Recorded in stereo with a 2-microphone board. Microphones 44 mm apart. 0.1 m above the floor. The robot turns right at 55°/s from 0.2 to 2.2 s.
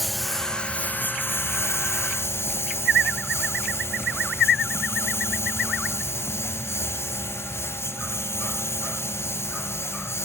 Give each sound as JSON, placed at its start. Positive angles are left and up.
{"t": 0.0, "sound": "a lawn mower", "side_deg": 0}